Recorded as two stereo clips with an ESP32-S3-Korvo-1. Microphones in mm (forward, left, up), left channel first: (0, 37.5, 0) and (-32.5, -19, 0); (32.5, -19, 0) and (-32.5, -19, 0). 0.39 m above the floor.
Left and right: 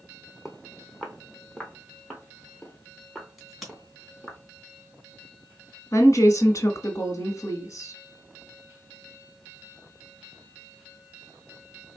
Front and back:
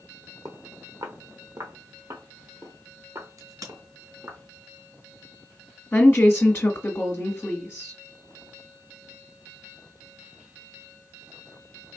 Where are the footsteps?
155° left, 1.2 m; by 4.4 s 135° left, 4 m.